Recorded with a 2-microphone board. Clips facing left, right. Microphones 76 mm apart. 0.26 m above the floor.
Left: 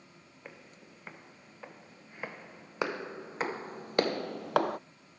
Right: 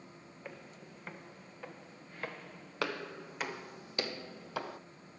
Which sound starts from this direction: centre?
Footsteps, at 0.5 s.